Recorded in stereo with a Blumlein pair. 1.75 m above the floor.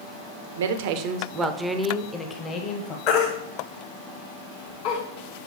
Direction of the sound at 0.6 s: 60° right.